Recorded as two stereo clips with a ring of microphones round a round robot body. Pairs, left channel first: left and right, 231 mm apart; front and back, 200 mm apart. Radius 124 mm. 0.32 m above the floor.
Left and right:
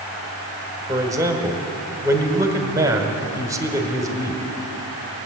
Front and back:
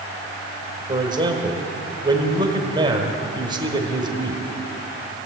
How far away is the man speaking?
About 1.4 m.